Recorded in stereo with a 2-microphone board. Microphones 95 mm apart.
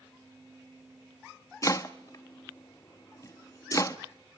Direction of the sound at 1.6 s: 35° left (ahead or behind).